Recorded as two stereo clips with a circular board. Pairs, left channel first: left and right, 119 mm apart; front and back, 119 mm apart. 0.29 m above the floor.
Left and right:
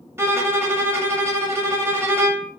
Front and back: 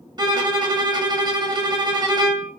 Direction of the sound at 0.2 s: 150° right.